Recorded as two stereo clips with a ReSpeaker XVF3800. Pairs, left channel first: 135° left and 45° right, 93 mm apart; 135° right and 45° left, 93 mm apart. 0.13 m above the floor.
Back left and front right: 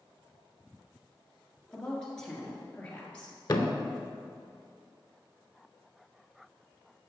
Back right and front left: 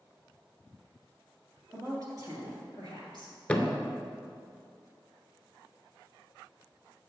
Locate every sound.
1.7 s a woman speaking: 50° left, 1.8 m; by 3.4 s 65° left, 2.5 m
3.5 s a thud: 155° left, 0.6 m